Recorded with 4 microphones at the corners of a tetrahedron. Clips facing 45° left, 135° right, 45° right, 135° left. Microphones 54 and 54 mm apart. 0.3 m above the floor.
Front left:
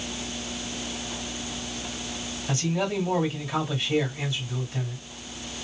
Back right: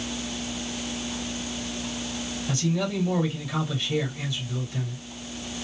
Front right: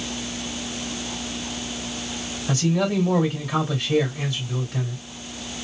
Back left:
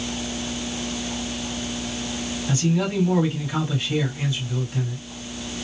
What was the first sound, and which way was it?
A man speaking, 30° right.